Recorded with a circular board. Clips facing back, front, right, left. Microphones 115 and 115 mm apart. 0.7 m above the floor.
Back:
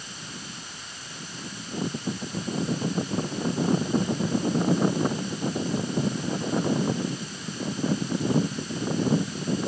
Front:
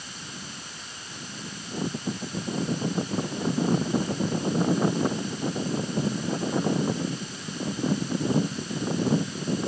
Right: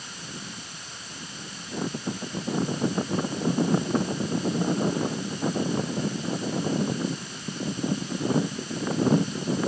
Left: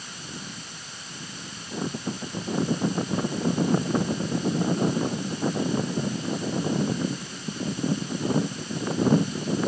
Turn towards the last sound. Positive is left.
No sound to turn to.